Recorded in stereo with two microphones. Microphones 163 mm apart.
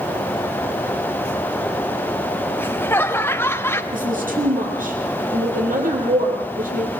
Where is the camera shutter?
I don't hear a camera shutter.